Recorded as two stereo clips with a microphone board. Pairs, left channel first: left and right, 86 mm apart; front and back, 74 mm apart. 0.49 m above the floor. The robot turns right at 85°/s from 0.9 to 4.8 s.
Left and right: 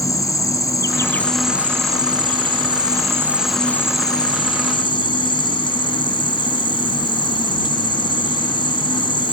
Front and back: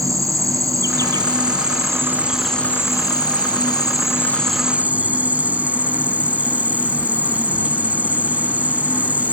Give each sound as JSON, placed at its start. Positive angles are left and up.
{"t": 0.0, "sound": "an insect", "azimuth_deg": 140}